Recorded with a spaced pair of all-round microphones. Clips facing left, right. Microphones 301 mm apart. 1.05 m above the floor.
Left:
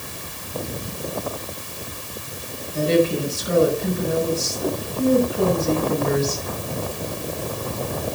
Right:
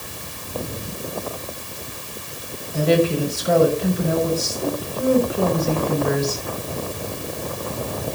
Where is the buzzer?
No buzzer in this recording.